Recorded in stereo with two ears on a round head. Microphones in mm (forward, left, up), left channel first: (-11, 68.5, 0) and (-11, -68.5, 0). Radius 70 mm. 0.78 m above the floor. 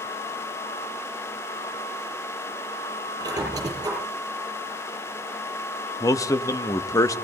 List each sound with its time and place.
3.2 s a squeak: 25° right (ahead or behind), 7 m
6.0 s a man speaking: 20° left (ahead or behind), 0.7 m